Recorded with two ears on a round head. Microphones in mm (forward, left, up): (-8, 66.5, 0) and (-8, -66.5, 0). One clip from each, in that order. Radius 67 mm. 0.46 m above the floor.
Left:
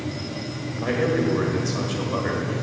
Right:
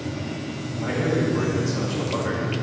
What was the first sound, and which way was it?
A man speaking, 60° left (ahead or behind).